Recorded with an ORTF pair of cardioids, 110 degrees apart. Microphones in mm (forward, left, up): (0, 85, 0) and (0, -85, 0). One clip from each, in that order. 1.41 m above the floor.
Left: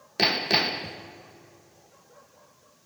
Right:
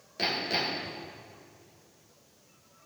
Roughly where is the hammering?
Ahead left.